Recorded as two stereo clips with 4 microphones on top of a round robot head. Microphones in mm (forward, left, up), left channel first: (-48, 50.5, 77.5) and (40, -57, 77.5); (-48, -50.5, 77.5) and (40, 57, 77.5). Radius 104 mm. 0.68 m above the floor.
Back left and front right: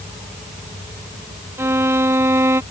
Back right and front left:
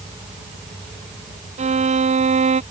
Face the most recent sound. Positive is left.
turn(degrees=20)